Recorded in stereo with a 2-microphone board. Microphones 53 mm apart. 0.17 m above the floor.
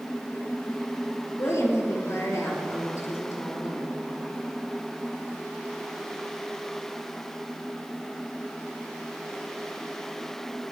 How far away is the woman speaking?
About 4 m.